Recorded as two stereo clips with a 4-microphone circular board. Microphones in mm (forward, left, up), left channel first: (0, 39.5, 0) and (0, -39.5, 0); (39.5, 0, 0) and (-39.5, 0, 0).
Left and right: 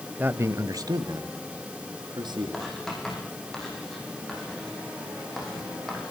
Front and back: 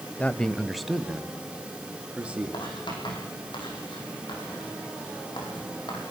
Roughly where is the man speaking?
Ahead right.